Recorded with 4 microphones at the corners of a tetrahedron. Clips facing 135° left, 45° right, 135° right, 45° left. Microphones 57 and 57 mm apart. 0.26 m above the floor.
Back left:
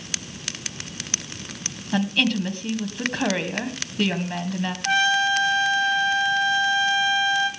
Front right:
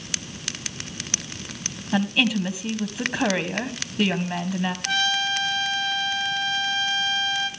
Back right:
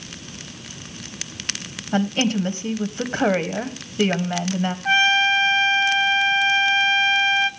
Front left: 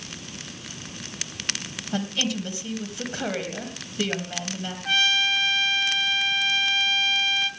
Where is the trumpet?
170° right, 1.8 m.